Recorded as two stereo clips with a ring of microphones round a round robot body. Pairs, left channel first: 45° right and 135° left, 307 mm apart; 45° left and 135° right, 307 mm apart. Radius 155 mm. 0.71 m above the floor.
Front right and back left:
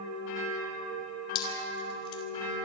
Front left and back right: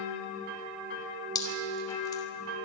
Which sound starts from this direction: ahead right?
Dripping, at 1.4 s.